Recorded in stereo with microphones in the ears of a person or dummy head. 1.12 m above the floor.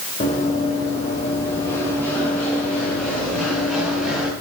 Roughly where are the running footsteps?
Left.